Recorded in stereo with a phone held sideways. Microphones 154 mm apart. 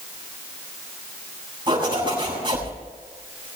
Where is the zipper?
30° right (ahead or behind), 8 m.